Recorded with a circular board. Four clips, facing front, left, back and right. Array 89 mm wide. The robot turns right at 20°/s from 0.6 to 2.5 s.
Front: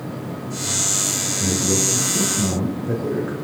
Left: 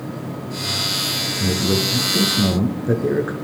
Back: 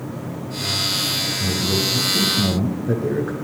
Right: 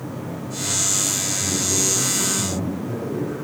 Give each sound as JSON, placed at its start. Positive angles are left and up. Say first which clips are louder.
{"t": 1.4, "sound": "a man speaking", "louder": "left 6 dB, front 2 dB", "azimuth_deg": 80, "distance_m": 3.0}